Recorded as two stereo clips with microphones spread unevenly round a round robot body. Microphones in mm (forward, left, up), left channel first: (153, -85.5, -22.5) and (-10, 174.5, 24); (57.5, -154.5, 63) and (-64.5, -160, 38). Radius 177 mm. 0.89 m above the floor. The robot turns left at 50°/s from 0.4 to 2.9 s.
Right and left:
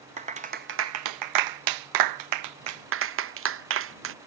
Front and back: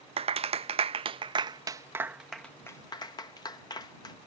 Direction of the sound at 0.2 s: 165° right.